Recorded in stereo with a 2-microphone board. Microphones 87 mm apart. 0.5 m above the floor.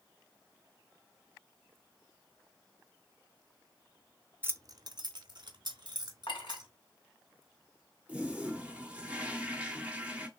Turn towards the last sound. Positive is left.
turn(degrees=-15)  # may be behind; listen again after turning